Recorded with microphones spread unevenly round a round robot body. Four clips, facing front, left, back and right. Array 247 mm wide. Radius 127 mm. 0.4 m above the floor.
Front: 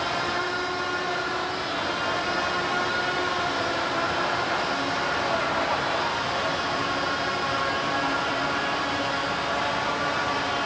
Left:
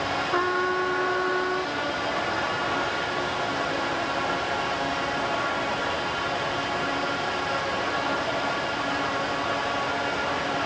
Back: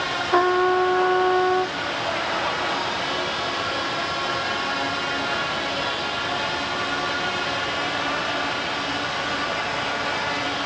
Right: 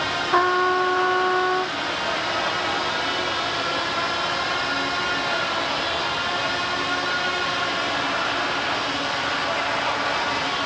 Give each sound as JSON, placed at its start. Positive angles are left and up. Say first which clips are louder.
{"t": 0.3, "sound": "a trumpet", "louder": "right 7 dB, back 10 dB", "azimuth_deg": -170}